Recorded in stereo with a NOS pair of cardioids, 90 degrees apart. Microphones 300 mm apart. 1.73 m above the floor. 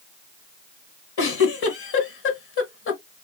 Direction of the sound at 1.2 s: 50° left.